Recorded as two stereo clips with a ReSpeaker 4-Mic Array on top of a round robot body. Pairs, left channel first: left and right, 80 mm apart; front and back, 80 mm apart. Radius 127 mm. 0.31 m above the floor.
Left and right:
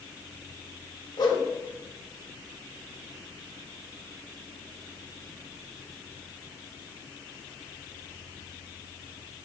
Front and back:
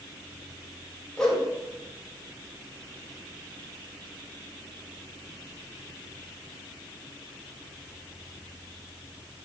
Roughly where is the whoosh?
Left.